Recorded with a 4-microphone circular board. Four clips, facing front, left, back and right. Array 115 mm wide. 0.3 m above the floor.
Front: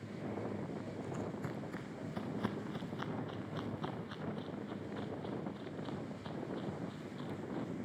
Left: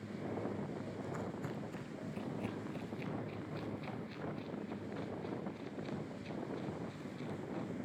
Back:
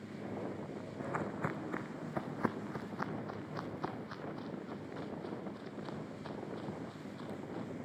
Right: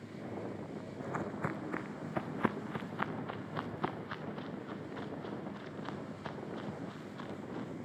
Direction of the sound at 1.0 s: 145° right.